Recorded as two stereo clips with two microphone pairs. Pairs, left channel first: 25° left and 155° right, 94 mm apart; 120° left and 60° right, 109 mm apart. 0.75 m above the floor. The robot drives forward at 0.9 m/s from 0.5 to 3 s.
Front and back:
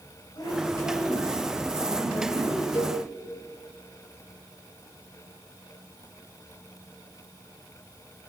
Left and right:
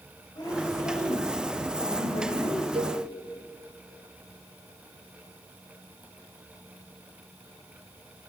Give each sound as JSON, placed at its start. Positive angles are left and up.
{"t": 0.3, "sound": "a woman speaking", "azimuth_deg": 70, "distance_m": 4.5}
{"t": 2.8, "sound": "a cowbell", "azimuth_deg": -30, "distance_m": 1.1}